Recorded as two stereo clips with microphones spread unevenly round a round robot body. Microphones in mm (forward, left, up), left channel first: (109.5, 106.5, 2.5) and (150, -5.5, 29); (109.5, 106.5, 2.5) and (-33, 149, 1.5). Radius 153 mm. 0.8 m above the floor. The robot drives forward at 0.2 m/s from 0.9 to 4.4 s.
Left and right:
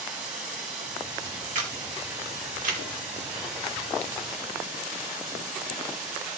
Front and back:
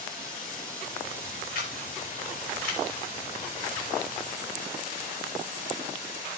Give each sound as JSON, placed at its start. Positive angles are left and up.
{"t": 0.0, "sound": "running water", "azimuth_deg": -100, "distance_m": 4.0}
{"t": 1.6, "sound": "a camera shutter", "azimuth_deg": -70, "distance_m": 2.5}